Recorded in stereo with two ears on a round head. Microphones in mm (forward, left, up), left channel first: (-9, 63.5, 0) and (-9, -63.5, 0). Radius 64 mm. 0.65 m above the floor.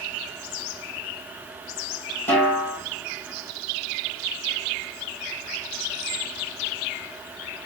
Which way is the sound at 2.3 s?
15° left (ahead or behind).